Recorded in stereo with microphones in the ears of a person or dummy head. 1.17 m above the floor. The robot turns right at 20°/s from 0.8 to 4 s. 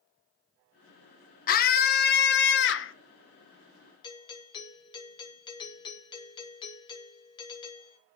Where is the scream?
45° left (ahead or behind), 0.9 m; by 2.9 s 60° left (ahead or behind), 0.9 m.